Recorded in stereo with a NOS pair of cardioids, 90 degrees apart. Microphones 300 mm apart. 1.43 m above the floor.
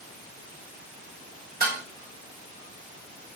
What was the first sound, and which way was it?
Dishes clattering, 30° right.